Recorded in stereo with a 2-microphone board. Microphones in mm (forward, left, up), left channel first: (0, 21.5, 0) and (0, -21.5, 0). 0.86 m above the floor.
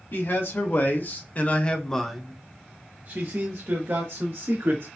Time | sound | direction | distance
0.1 | a man speaking | 60° left (ahead or behind) | 1.4 m